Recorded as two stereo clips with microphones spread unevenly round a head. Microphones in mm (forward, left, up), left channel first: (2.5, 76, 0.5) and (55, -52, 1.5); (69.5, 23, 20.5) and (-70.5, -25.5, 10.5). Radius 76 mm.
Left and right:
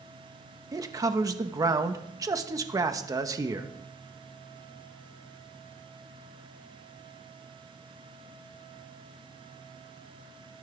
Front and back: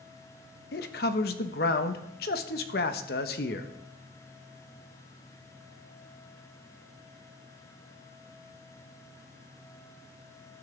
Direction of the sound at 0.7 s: 5° right.